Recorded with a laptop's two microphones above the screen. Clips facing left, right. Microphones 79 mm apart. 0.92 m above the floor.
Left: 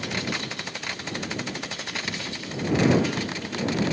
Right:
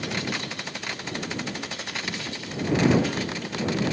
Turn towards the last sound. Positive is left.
No sound to turn to.